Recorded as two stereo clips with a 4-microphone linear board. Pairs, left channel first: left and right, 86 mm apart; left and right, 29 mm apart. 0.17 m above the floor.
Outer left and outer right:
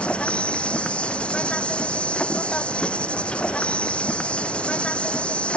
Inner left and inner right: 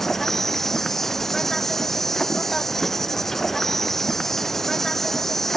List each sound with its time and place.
0.0 s an insect: 10° left (ahead or behind)